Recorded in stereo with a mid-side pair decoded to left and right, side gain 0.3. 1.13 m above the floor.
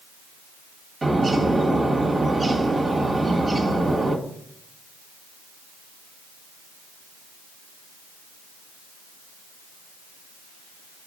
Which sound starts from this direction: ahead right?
A bird, at 1.0 s.